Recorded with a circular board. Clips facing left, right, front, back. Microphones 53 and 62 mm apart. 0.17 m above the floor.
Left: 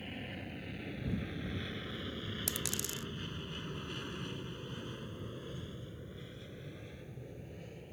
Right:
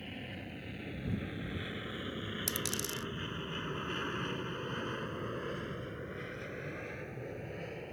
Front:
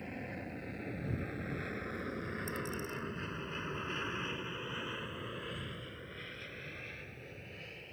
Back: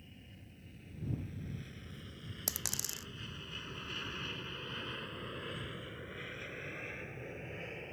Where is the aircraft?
Straight ahead; by 7.9 s 115° right.